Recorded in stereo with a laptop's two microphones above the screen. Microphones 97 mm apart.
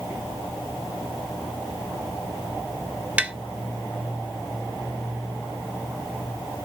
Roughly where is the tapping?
Centre.